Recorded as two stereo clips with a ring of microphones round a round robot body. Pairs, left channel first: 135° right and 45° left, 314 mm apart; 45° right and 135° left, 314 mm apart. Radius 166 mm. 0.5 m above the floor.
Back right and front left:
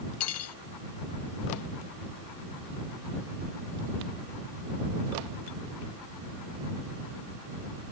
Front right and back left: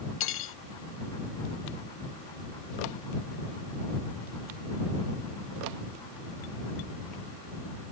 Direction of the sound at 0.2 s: 95° right.